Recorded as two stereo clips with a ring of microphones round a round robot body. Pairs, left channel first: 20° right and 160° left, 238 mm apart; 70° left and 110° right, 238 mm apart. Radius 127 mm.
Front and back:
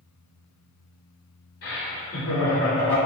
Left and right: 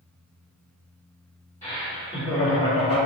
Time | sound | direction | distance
1.6 | laughter | straight ahead | 1.8 m